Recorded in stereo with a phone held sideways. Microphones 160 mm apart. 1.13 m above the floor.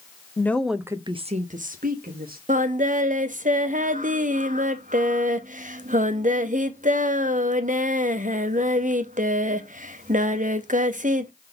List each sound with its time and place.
0.4 s a woman speaking: 15° left (ahead or behind), 0.8 m; by 2.4 s 75° right (ahead or behind), 1.5 m
2.5 s singing: 55° right (ahead or behind), 0.8 m